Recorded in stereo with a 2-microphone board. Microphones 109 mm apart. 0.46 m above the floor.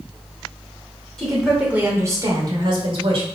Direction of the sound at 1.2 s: 5° left (ahead or behind).